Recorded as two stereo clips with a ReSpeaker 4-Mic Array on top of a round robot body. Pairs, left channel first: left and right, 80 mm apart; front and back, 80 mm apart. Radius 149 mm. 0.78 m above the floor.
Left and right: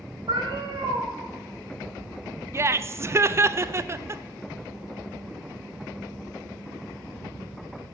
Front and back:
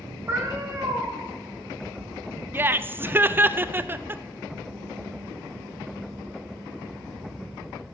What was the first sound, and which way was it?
A cat meowing, 115° right.